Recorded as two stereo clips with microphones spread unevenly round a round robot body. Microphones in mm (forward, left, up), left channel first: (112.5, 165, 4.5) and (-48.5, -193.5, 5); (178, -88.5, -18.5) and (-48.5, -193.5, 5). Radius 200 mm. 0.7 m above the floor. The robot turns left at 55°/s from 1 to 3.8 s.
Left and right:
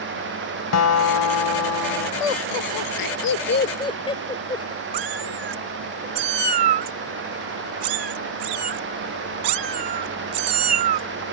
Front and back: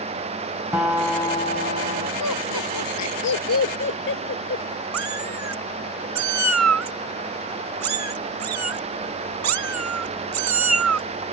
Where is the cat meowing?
150° right.